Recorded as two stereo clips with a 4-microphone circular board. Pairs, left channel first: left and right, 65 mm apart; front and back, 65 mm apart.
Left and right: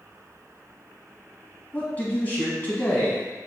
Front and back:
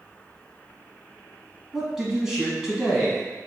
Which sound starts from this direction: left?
A man speaking, at 1.7 s.